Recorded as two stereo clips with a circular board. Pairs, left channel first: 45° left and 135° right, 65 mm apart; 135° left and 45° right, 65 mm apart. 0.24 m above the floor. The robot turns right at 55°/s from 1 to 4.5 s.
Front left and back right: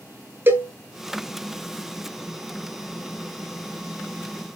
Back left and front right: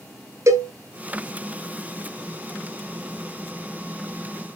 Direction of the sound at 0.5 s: 80° right.